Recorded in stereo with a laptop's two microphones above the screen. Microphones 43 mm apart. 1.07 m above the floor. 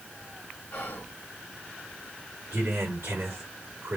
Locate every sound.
0.7 s whispering: 55° left (ahead or behind), 1.3 m
2.5 s a man speaking: 70° right (ahead or behind), 2.5 m